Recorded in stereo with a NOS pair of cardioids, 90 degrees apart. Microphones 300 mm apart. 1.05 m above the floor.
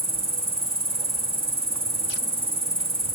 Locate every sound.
0.0 s an insect: 20° right, 1.4 m